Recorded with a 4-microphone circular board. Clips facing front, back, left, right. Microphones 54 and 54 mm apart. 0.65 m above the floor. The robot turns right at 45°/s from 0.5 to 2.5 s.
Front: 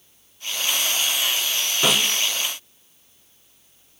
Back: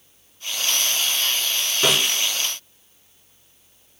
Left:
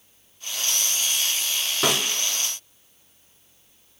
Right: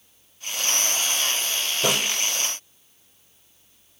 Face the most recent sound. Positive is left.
turn(degrees=115)